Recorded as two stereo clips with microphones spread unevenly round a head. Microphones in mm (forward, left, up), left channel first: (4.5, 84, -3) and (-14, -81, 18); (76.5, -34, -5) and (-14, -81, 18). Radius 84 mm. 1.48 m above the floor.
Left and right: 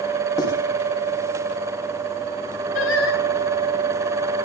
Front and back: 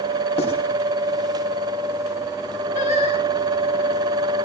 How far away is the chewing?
No chewing in this recording.